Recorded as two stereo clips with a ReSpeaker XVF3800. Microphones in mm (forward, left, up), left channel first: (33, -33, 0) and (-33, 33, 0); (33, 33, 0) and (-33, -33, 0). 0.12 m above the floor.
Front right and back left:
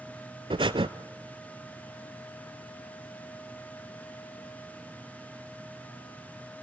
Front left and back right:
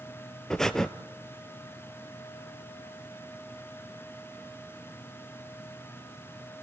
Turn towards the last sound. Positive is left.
turn(degrees=130)